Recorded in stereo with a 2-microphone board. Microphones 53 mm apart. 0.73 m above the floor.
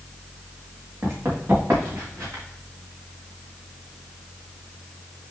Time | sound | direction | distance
1.0 | running footsteps | 65° right (ahead or behind) | 4 m